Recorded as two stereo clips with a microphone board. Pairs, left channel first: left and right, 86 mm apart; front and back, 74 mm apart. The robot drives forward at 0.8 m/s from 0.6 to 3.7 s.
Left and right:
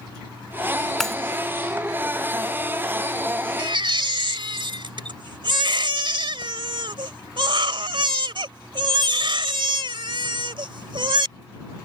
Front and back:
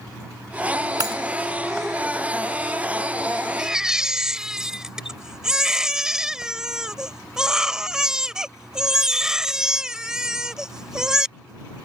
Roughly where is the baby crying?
Right.